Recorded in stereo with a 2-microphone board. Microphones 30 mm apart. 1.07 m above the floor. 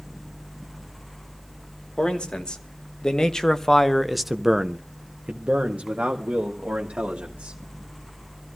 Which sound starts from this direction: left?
A man speaking, at 2.0 s.